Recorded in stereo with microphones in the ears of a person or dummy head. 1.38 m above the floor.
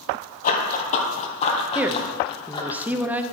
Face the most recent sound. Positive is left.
turn(degrees=-10)  # may be behind; listen again after turning